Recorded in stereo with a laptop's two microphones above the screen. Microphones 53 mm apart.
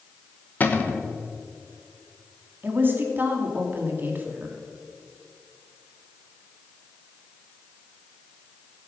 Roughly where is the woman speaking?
Right.